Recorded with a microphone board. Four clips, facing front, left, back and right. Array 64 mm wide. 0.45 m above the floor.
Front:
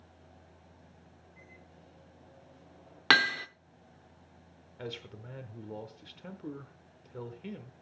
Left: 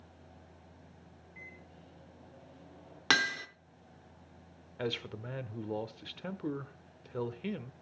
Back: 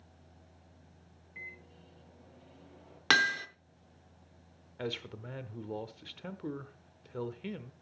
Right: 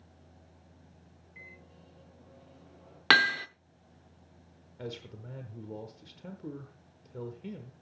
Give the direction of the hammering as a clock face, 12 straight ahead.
2 o'clock.